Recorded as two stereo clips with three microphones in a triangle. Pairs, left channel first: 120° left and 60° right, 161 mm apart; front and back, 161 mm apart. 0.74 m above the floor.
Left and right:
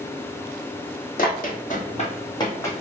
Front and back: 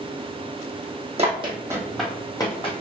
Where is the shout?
No shout in this recording.